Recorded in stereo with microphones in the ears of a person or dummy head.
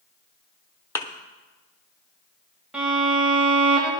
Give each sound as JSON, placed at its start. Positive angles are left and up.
{"t": 0.9, "sound": "a thud", "side_deg": 15, "distance_m": 1.0}
{"t": 2.7, "sound": "a violin", "side_deg": -5, "distance_m": 1.5}